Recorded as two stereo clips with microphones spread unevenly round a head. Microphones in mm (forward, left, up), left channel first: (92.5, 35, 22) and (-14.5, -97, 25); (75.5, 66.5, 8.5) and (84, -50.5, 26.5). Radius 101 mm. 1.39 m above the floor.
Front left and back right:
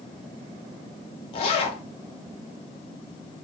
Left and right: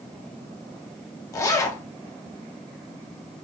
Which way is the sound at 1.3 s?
45° left.